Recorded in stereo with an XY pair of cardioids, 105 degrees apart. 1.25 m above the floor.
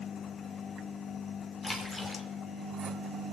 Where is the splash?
20° left, 2.5 m.